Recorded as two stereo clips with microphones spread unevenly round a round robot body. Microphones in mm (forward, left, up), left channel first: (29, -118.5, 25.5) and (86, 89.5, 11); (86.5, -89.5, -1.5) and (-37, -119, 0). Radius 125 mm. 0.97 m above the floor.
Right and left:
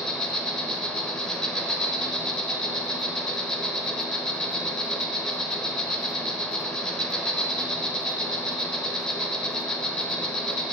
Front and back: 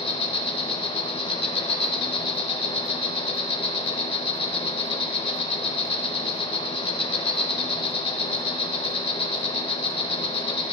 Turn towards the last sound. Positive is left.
turn(degrees=-20)